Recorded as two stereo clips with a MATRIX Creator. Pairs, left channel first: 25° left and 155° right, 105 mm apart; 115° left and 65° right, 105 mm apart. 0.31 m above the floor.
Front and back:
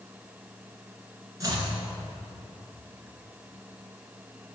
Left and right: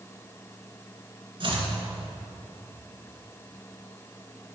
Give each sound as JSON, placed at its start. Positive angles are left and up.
{"t": 1.4, "sound": "chopping", "azimuth_deg": -100, "distance_m": 1.7}